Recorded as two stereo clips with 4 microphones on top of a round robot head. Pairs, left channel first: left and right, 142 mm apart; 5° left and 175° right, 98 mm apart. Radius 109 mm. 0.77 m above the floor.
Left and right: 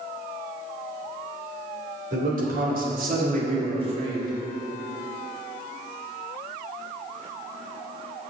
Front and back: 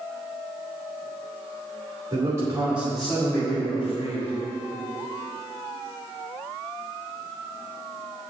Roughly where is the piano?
I don't hear a piano.